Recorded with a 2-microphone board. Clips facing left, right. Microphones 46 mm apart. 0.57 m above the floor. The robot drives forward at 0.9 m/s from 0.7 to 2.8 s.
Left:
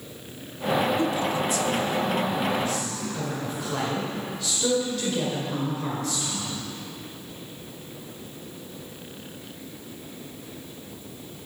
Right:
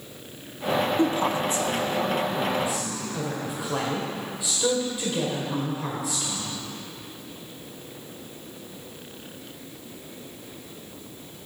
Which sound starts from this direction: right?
A woman speaking, at 1.0 s.